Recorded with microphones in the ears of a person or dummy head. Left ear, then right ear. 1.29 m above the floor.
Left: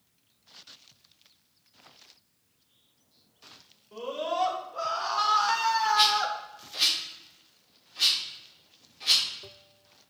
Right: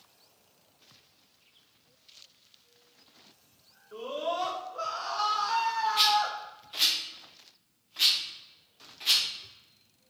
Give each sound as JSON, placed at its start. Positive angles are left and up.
{"t": 3.9, "sound": "a scream", "side_deg": 10, "distance_m": 2.0}
{"t": 6.0, "sound": "a rattle", "side_deg": -30, "distance_m": 1.9}